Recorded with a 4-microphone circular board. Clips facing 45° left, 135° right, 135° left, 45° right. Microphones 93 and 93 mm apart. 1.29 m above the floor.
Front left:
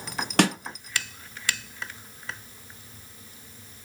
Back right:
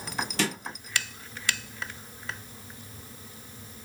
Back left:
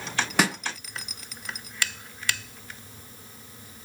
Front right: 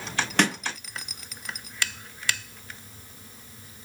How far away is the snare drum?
About 0.8 m.